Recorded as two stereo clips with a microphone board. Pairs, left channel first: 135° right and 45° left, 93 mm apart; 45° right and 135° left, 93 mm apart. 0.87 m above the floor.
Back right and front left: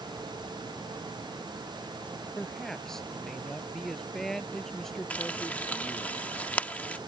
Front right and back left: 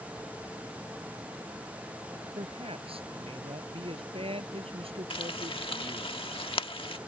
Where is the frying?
60° right.